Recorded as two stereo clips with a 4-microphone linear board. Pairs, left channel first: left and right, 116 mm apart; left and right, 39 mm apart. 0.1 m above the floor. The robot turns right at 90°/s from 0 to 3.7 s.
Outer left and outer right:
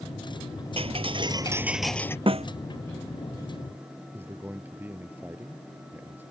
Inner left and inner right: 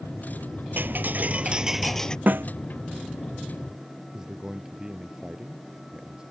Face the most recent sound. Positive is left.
turn(degrees=-15)  # may be behind; listen again after turning